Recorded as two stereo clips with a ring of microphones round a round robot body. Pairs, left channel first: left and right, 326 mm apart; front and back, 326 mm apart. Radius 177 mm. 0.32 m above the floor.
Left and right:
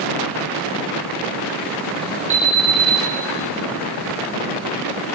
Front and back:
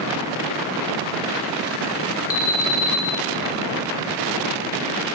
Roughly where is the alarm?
Ahead right.